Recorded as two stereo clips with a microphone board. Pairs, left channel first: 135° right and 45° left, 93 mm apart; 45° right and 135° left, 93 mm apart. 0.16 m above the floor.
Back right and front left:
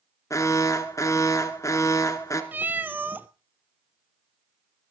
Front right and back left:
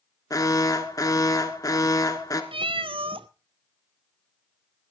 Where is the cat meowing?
115° left, 0.6 m.